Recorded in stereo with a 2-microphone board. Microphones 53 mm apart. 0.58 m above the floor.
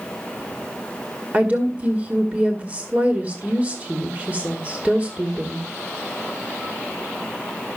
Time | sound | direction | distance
1.3 | a woman speaking | 25° right (ahead or behind) | 1.8 m